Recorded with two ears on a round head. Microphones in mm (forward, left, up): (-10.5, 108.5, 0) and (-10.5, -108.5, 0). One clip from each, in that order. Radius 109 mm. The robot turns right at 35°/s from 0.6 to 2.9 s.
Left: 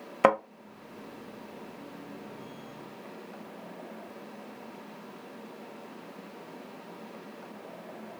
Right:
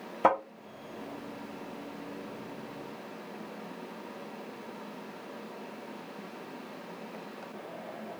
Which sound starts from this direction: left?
A thud, at 0.2 s.